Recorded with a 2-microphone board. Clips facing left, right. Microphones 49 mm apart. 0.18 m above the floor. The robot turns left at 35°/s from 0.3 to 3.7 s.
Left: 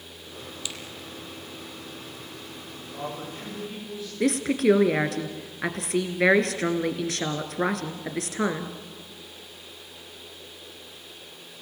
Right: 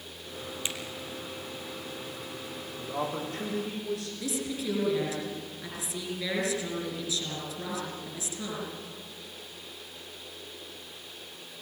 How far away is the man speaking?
About 10 m.